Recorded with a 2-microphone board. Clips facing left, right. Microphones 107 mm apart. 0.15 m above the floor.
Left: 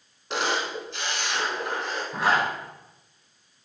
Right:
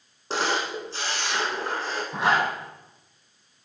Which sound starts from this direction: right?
A camera shutter, at 0.3 s.